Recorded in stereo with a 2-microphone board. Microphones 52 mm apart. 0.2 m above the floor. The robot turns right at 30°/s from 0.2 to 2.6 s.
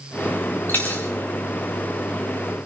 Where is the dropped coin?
40° left (ahead or behind), 2 m; by 1.0 s 30° left (ahead or behind), 2 m.